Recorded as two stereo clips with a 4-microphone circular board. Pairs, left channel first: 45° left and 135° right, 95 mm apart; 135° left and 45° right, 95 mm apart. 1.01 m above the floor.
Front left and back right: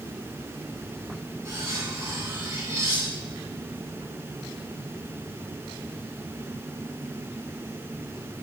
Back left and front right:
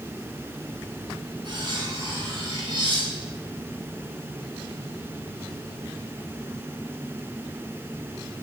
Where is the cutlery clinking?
75° right, 6 m.